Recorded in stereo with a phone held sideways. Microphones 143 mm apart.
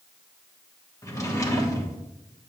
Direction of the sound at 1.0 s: 20° left (ahead or behind).